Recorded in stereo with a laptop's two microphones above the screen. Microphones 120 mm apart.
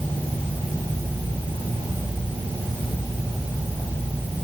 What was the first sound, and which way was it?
Only background noise.